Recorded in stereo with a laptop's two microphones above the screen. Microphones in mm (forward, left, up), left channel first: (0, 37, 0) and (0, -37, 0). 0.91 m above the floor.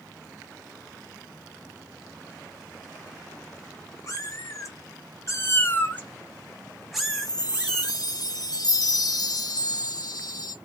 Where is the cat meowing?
45° left (ahead or behind), 1.6 m; by 7.9 s 10° right (ahead or behind), 1.8 m.